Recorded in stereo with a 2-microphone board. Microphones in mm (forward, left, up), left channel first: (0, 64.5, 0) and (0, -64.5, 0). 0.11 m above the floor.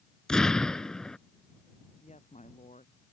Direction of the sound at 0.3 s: 5° left (ahead or behind).